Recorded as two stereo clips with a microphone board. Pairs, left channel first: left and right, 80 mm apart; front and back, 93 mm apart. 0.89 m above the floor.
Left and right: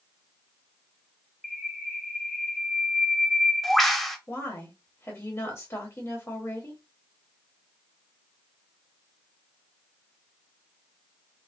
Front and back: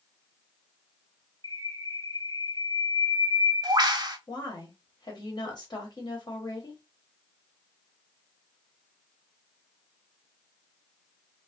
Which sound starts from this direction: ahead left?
A woman speaking, at 4.3 s.